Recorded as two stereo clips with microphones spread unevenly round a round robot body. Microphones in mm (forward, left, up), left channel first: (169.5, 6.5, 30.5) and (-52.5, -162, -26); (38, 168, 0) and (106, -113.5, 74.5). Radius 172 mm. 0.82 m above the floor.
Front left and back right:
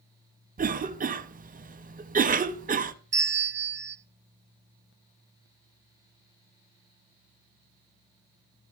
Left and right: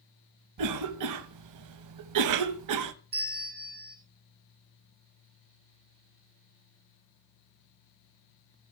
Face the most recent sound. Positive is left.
turn(degrees=-95)